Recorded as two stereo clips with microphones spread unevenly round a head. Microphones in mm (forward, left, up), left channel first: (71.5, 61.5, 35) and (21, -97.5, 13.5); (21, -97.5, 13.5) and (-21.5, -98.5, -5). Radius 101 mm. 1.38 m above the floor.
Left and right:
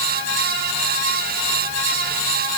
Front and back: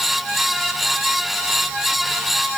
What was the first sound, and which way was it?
Only background noise.